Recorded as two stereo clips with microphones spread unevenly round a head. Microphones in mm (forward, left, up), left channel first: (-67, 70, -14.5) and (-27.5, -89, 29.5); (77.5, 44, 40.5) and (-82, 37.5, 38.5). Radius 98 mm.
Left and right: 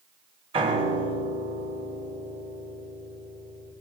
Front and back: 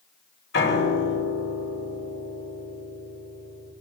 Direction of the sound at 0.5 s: 10° right.